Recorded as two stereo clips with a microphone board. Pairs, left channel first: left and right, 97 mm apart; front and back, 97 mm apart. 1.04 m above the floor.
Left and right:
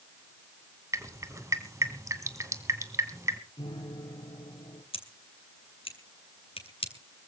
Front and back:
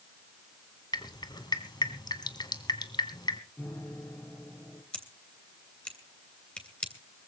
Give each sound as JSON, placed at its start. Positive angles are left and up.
{"t": 0.9, "sound": "dripping", "azimuth_deg": -35, "distance_m": 1.8}
{"t": 3.6, "sound": "a piano", "azimuth_deg": 70, "distance_m": 4.0}
{"t": 4.9, "sound": "scissors", "azimuth_deg": 80, "distance_m": 3.0}